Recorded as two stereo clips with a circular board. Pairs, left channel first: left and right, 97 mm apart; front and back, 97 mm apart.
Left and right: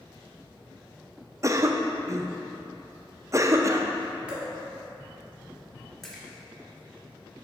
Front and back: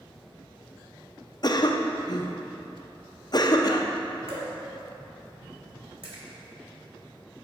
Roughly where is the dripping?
Behind.